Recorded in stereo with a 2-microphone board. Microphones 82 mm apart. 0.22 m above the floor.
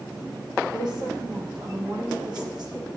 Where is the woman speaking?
60° right (ahead or behind), 9.5 m; by 2.9 s 65° right (ahead or behind), 11 m.